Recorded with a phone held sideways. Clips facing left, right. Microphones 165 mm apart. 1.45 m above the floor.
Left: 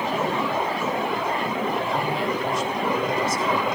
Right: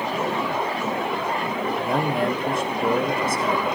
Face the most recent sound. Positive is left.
turn(degrees=-50)  # may be behind; listen again after turning